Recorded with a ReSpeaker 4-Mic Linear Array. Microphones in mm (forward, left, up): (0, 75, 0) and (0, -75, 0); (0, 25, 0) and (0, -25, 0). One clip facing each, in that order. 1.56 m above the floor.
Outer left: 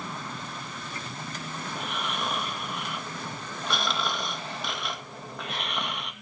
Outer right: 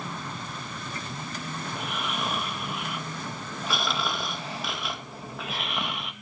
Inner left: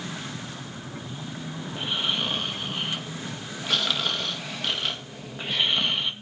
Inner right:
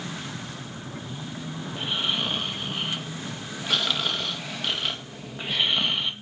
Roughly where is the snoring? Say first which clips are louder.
Even, even; centre.